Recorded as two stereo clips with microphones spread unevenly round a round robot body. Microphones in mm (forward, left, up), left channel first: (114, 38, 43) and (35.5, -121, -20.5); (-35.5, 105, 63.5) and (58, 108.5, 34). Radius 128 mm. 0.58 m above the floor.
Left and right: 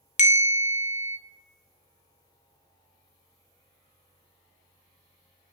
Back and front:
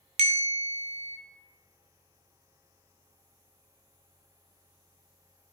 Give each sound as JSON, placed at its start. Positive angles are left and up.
{"t": 0.2, "sound": "a bell", "azimuth_deg": 10, "distance_m": 0.5}